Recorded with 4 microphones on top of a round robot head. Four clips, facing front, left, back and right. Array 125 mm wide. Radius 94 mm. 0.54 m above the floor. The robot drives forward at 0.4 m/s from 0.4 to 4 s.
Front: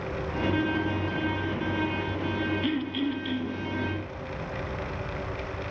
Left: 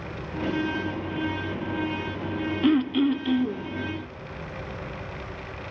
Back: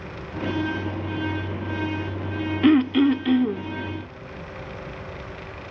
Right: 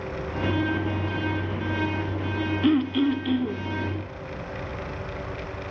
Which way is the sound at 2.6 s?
175° left.